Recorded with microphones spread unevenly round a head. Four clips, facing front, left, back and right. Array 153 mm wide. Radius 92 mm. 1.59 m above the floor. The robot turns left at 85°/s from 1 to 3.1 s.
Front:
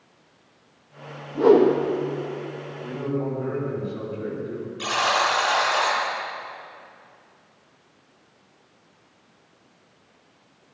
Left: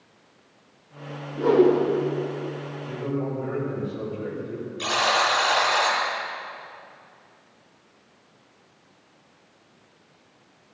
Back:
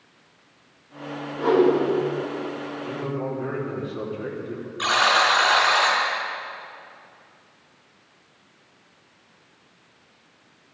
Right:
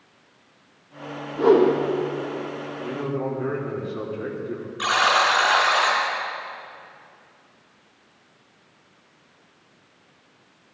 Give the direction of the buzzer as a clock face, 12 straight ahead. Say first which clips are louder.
Right 3 dB, back 3 dB; 4 o'clock.